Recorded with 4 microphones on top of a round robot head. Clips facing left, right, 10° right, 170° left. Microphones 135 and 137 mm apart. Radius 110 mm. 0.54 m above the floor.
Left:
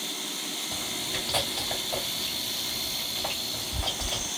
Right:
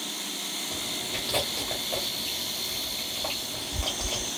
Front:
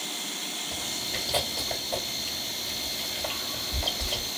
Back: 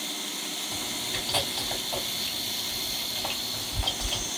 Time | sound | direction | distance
0.7 | chewing | 30° right | 1.8 m